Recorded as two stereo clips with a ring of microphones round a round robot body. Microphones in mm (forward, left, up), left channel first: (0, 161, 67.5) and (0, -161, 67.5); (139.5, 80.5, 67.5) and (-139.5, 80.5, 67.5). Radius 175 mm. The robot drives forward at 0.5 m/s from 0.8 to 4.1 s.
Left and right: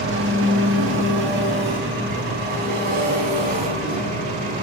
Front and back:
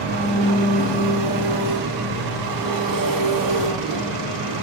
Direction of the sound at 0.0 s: 145° right.